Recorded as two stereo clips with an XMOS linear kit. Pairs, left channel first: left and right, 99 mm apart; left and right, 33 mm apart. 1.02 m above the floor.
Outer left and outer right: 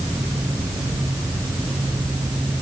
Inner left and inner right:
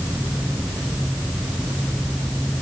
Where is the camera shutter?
No camera shutter in this recording.